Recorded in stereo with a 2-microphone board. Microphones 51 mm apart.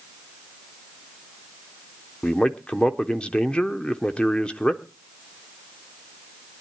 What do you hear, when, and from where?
2.2 s a man speaking: 20° left (ahead or behind), 0.9 m